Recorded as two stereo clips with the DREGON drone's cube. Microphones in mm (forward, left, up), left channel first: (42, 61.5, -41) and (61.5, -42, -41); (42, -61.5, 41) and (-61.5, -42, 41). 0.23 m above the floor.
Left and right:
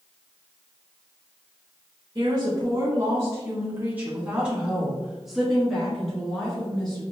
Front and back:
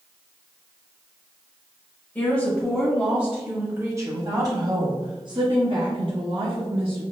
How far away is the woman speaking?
About 1.3 m.